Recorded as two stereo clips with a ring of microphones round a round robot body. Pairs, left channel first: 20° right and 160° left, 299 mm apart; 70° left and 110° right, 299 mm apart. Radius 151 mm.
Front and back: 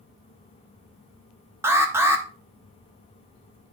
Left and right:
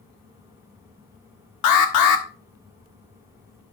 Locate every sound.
1.6 s an alarm: 75° left, 1.5 m